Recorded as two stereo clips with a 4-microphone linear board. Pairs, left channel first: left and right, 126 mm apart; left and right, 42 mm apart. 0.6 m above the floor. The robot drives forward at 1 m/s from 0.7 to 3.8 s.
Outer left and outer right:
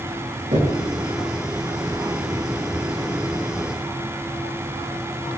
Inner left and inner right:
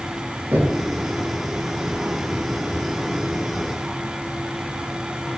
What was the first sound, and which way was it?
Knocking, 75° right (ahead or behind).